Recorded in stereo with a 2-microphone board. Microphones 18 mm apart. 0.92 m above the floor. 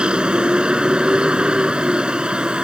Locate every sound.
0.0 s a vehicle: 75° right (ahead or behind)